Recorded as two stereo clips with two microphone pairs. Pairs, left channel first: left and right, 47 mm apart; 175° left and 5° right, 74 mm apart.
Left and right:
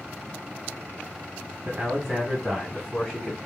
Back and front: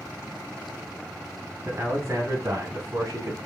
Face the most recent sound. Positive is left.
turn(degrees=20)